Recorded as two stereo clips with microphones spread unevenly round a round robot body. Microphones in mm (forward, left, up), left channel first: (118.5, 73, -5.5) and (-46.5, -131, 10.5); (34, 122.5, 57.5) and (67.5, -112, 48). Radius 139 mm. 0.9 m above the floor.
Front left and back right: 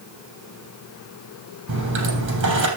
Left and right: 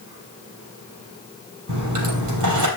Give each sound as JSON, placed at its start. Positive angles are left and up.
{"t": 1.7, "sound": "a dropped coin", "azimuth_deg": -90, "distance_m": 3.5}